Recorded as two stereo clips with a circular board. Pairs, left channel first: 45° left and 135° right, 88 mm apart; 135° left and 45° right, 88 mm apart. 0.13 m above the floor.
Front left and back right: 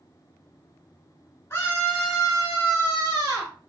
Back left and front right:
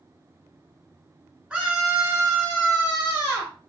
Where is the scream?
25° left, 1.2 m; by 3.5 s 115° right, 1.7 m.